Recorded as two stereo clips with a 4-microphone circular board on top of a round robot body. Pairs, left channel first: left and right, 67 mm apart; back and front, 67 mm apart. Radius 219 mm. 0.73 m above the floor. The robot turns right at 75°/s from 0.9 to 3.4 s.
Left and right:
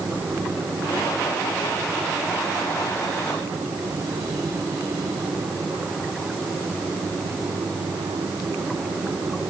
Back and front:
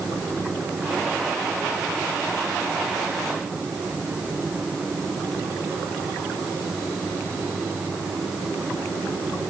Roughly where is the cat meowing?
No cat meowing in this recording.